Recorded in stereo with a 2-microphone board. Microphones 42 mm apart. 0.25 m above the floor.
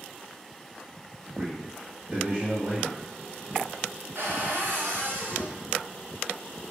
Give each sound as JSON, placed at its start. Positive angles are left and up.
{"t": 1.4, "sound": "a man speaking", "side_deg": -15, "distance_m": 0.9}
{"t": 4.2, "sound": "a cupboard door", "side_deg": -60, "distance_m": 1.4}